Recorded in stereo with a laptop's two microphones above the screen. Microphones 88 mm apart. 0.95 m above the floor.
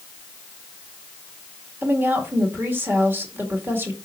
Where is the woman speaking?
25° right (ahead or behind), 1.7 m.